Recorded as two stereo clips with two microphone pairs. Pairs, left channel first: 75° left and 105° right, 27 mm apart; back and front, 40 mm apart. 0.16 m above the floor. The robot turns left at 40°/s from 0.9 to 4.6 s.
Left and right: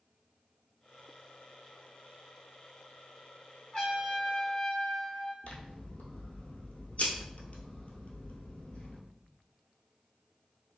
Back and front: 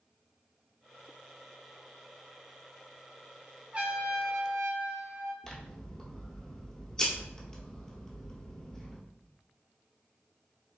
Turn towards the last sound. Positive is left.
turn(degrees=105)